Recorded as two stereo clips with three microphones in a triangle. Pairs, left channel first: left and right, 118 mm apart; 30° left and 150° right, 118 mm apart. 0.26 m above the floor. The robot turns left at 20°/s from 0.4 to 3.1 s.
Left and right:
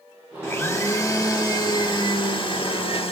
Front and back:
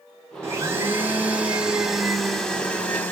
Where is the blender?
155° left, 0.6 m; by 3.1 s 100° left, 0.6 m.